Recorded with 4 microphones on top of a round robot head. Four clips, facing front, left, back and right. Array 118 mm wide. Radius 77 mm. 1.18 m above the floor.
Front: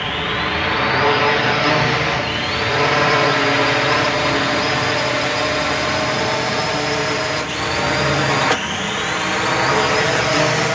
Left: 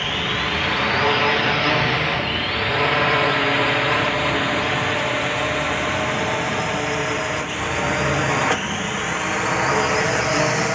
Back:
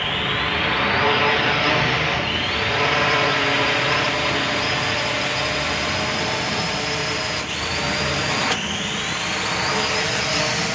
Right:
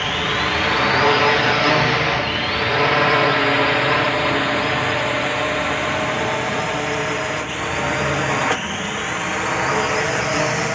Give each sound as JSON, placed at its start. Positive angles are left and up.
{"t": 0.0, "sound": "a drone", "azimuth_deg": -55}